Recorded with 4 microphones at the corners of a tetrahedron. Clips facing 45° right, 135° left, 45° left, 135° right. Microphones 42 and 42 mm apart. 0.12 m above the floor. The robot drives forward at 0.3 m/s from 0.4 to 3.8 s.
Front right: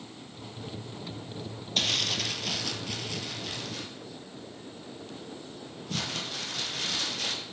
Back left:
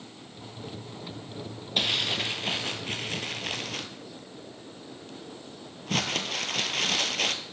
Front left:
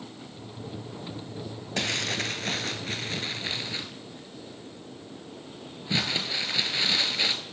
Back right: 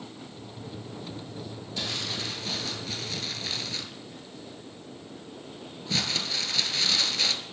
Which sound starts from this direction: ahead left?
Crumpling, at 1.8 s.